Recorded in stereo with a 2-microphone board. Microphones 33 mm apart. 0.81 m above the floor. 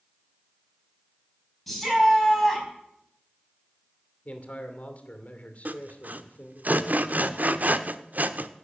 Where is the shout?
5° left (ahead or behind), 6 m.